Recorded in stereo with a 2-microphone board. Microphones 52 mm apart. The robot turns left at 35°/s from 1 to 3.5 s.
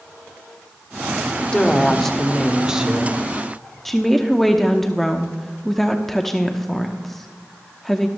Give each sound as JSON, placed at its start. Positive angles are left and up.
{"t": 1.5, "sound": "a woman speaking", "azimuth_deg": 25, "distance_m": 1.1}
{"t": 3.9, "sound": "a woman speaking", "side_deg": 5, "distance_m": 0.7}